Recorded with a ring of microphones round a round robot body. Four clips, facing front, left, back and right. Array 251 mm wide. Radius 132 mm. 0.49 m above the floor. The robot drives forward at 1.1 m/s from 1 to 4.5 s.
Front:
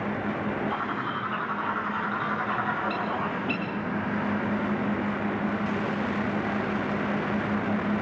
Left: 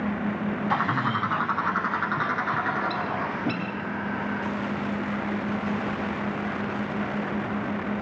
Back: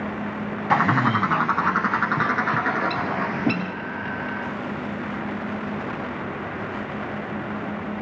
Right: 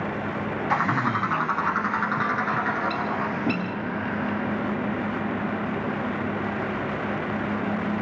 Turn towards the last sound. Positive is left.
turn(degrees=180)